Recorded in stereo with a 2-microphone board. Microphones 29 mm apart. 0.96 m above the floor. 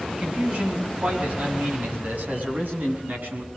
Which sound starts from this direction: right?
A man speaking, at 0.1 s.